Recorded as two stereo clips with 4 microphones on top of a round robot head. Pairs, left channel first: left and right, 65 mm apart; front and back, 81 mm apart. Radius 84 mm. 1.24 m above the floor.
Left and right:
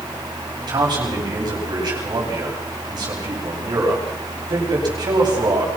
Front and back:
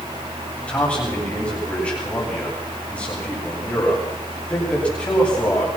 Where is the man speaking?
80° right, 10 m.